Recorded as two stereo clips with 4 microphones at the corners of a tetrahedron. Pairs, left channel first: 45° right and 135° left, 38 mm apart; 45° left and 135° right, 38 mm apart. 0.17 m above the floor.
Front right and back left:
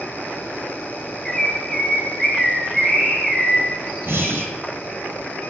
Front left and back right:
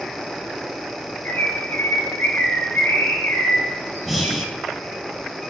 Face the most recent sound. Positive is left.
turn(degrees=140)